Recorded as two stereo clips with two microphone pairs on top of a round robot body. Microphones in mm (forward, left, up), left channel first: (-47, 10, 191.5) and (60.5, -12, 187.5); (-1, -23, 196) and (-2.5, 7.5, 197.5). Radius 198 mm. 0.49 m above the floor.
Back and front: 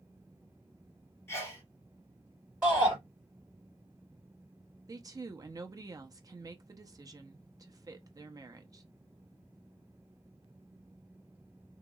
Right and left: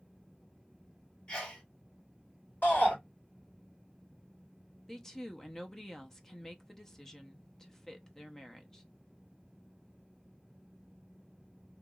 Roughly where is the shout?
Right.